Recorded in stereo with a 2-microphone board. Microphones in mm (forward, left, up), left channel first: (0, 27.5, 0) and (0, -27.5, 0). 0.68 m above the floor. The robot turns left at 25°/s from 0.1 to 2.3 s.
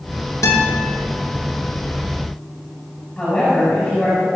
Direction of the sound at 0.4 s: 65° left (ahead or behind).